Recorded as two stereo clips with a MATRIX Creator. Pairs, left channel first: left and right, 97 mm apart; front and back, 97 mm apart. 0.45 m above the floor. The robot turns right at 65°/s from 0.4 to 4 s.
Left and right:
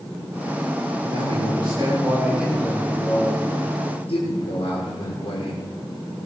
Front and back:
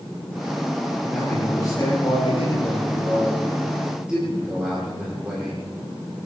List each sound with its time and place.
1.0 s a man speaking: 95° right, 8 m; by 5.6 s 100° left, 8 m